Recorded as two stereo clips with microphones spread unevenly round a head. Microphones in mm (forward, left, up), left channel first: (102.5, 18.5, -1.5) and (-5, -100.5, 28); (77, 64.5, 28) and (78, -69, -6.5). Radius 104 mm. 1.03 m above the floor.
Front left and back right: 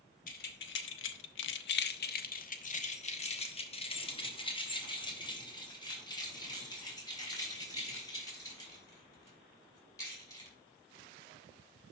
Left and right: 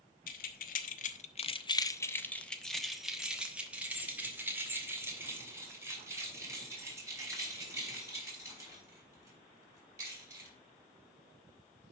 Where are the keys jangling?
105° left, 0.9 m; by 10.5 s 25° right, 5.5 m.